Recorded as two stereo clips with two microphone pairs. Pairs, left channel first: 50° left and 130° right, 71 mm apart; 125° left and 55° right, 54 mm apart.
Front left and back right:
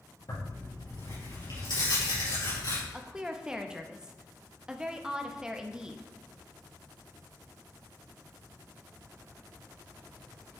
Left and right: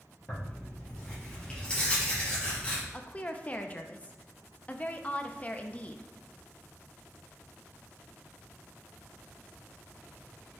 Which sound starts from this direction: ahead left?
Tearing paper, at 0.3 s.